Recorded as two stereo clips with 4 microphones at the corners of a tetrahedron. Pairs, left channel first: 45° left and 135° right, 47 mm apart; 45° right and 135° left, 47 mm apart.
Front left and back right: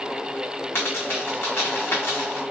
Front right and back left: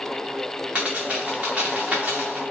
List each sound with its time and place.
0.8 s a dropped coin: 75° left, 1.6 m